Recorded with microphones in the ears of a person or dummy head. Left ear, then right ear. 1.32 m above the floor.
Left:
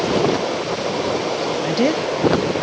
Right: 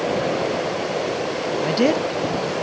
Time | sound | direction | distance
1.6 | a woman speaking | 5° right (ahead or behind) | 0.7 m